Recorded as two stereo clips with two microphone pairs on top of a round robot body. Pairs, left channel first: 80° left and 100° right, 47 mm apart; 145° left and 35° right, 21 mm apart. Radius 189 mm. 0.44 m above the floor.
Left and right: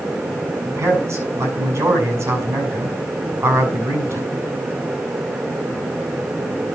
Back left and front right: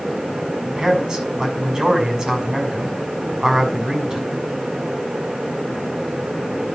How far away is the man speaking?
About 6 m.